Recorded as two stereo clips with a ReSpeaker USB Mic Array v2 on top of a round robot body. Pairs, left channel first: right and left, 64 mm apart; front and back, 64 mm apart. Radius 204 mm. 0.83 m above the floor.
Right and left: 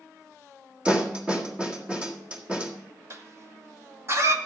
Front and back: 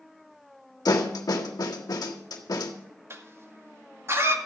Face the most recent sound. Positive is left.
turn(degrees=135)